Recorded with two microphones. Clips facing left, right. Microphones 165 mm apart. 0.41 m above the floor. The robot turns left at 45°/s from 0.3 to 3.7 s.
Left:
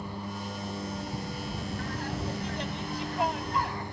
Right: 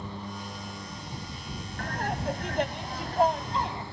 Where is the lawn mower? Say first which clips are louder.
Left 1 dB; 170° left; by 3.9 s 20° left.